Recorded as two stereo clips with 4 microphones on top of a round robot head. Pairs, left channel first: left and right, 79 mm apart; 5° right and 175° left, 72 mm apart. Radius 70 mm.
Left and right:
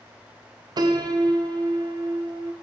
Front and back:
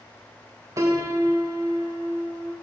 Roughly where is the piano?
Behind right.